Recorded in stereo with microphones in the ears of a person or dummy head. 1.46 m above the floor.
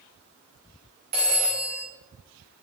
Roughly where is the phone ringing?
Right.